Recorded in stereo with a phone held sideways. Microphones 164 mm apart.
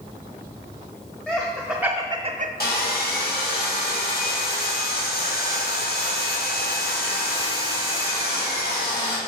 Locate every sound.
1.3 s laughter: 10° left (ahead or behind), 1.1 m; by 2.5 s 60° right (ahead or behind), 0.5 m
2.6 s sawing: 75° left (ahead or behind), 1.7 m